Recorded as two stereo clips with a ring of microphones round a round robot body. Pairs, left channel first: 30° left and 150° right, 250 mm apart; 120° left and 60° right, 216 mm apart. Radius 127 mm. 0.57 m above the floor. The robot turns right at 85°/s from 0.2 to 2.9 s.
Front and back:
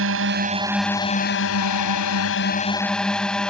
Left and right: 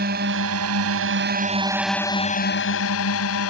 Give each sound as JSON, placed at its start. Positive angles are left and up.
{"t": 0.0, "sound": "a drone", "azimuth_deg": -115}